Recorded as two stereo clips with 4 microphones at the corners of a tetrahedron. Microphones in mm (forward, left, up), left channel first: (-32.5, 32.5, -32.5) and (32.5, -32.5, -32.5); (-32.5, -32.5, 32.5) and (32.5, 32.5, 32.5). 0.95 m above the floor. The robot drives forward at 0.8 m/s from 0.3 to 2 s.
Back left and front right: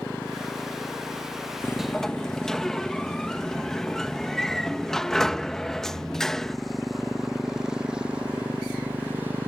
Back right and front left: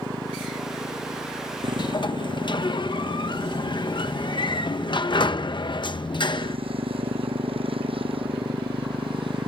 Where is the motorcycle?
70° left; by 9.5 s 20° left.